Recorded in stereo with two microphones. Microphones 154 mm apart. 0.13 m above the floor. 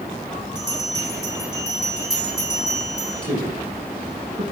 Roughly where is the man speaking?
Right.